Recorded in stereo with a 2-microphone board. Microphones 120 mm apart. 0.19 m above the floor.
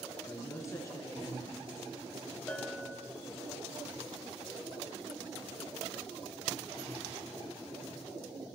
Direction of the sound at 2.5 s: 10° left (ahead or behind).